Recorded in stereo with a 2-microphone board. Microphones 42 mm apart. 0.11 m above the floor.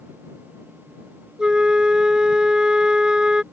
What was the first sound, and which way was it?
A flute, 20° right (ahead or behind).